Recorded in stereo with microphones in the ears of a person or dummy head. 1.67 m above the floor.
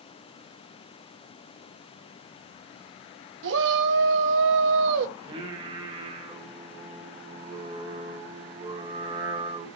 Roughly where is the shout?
Right.